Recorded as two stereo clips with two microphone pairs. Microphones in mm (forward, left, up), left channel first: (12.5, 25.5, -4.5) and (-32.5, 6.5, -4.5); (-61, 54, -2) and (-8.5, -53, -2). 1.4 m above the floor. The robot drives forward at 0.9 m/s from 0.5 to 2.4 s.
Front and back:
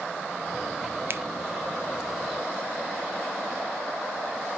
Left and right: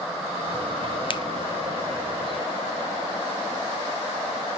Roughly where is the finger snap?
Behind.